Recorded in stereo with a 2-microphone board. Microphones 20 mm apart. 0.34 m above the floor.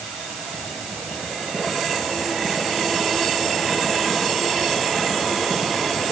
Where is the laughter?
No laughter in this recording.